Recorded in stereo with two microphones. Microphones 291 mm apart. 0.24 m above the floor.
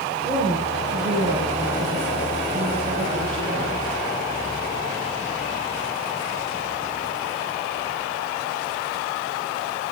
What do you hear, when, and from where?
0.2 s a woman speaking: centre (ahead or behind), 3.5 m; by 3.8 s 25° left (ahead or behind), 7 m